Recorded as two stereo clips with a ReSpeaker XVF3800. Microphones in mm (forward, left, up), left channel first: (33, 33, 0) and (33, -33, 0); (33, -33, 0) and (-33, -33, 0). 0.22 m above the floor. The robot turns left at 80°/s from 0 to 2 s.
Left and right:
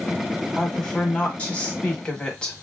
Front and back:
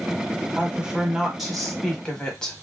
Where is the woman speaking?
165° left, 1.0 m; by 2.6 s 50° left, 1.0 m.